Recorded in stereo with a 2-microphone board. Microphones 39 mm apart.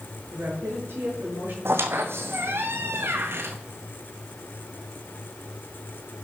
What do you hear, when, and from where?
0.3 s a woman speaking: 70° right (ahead or behind), 6.5 m; by 1.6 s 65° right (ahead or behind), 6 m
1.6 s a squeak: 80° right, 1.6 m